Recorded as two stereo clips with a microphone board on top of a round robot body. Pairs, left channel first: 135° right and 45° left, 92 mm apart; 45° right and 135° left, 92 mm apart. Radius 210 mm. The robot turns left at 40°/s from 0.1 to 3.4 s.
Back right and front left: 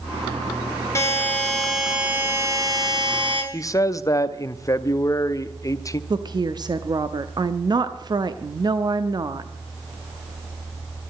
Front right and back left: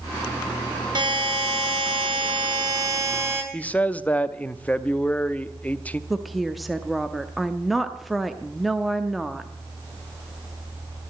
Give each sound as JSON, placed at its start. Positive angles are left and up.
{"t": 0.9, "sound": "a buzzer", "azimuth_deg": 165, "distance_m": 3.0}
{"t": 3.5, "sound": "a man speaking", "azimuth_deg": -110, "distance_m": 0.9}
{"t": 6.1, "sound": "a woman speaking", "azimuth_deg": 45, "distance_m": 1.0}